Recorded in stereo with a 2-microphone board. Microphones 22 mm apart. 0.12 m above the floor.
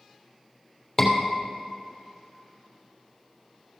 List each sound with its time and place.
1.0 s a scream: 15° left (ahead or behind), 3 m